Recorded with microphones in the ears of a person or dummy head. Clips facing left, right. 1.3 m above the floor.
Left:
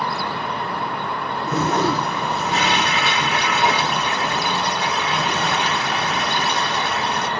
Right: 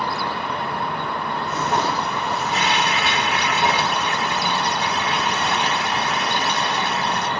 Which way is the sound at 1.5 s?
70° left (ahead or behind).